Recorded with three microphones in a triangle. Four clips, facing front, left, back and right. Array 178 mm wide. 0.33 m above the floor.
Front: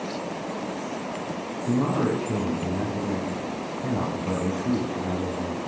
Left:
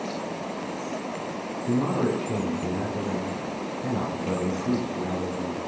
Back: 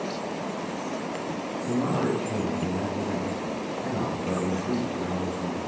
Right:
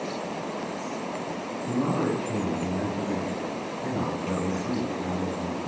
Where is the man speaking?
30° left, 2.5 m.